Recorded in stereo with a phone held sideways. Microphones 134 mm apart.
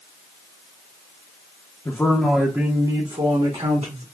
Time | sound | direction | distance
1.9 | a man speaking | 25° left (ahead or behind) | 0.7 m